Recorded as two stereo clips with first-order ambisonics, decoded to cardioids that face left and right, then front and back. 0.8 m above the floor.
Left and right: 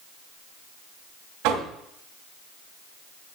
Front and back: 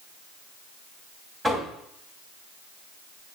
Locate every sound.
1.4 s knocking: 105° right, 3 m